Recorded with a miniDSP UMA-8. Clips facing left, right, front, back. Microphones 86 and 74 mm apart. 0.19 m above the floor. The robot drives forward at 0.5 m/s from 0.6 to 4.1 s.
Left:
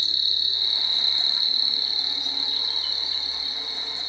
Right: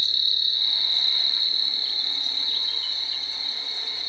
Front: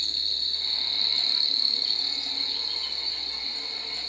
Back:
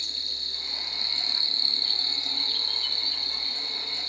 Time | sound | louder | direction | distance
0.0 | an insect | even, front 2 dB | 100° left | 0.9 m